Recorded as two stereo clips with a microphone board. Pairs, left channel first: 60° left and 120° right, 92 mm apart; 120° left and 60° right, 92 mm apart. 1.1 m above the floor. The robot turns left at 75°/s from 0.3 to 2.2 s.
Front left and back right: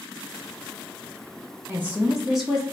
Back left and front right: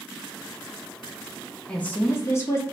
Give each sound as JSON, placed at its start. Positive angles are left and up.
{"t": 1.7, "sound": "a woman speaking", "azimuth_deg": -165, "distance_m": 0.5}